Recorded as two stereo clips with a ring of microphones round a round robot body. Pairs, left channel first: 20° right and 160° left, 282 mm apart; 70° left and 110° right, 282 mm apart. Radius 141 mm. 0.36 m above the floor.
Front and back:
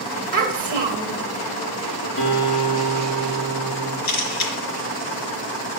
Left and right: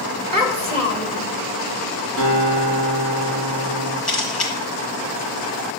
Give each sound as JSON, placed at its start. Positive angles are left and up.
{"t": 0.3, "sound": "a child speaking", "azimuth_deg": -170, "distance_m": 0.9}
{"t": 2.2, "sound": "a guitar", "azimuth_deg": -85, "distance_m": 2.5}
{"t": 4.0, "sound": "a camera shutter", "azimuth_deg": -20, "distance_m": 1.9}